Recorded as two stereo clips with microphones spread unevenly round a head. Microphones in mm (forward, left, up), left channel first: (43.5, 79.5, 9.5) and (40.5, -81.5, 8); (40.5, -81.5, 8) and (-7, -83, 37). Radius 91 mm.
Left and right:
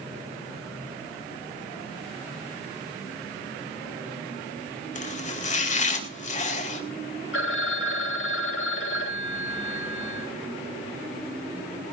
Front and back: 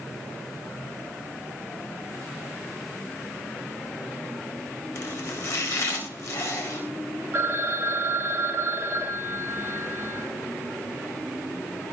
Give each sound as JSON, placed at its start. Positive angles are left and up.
{"t": 5.0, "sound": "chopping", "azimuth_deg": 45, "distance_m": 4.0}
{"t": 7.3, "sound": "a phone ringing", "azimuth_deg": 115, "distance_m": 3.0}